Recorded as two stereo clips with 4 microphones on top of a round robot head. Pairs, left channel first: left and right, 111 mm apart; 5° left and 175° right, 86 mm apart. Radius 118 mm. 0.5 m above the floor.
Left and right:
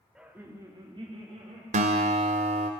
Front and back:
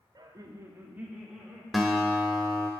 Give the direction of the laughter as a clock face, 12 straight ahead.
6 o'clock.